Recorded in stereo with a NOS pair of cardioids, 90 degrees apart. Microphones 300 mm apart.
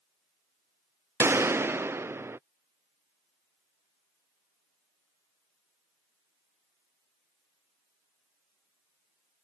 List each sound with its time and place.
1.2 s a gunshot: 10° right